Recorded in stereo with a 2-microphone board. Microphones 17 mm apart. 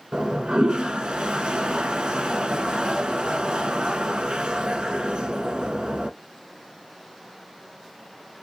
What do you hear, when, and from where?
0.1 s a toilet flushing: 75° right (ahead or behind), 0.7 m